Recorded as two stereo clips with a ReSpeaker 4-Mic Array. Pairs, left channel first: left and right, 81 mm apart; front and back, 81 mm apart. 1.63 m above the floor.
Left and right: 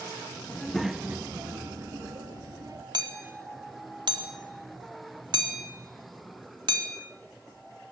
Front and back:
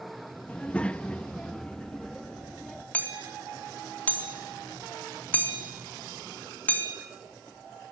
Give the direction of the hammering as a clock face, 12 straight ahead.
2 o'clock.